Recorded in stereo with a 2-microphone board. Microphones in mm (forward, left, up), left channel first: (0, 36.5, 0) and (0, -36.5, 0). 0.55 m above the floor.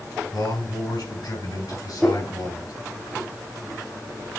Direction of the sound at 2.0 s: 10° left (ahead or behind).